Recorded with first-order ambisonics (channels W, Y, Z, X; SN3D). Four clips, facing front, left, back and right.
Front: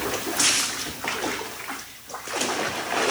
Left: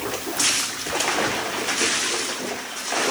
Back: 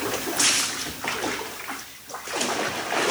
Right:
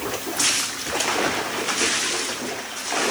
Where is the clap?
I don't hear a clap.